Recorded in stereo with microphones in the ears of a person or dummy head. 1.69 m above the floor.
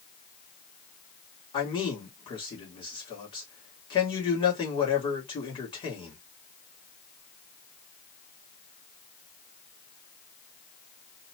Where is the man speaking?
25° left (ahead or behind), 1.5 m.